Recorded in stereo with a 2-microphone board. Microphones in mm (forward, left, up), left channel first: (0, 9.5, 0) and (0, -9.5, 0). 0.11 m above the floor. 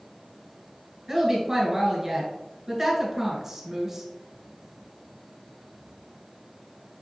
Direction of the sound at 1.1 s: 15° right (ahead or behind).